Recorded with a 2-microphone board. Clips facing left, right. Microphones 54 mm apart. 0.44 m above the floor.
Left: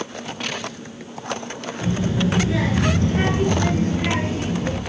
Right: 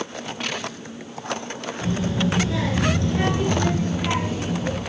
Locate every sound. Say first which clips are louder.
1.8 s a child speaking: left 2 dB; 15° left (ahead or behind), 3.5 m; by 4.8 s 45° left (ahead or behind), 5 m